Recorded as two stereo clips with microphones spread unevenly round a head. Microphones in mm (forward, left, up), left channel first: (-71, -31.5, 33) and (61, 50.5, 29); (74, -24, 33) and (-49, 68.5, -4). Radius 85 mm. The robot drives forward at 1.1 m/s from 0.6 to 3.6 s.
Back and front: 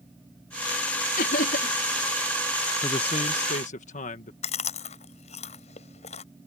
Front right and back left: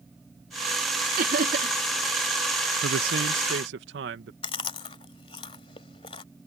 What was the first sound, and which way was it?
Laughter, straight behind.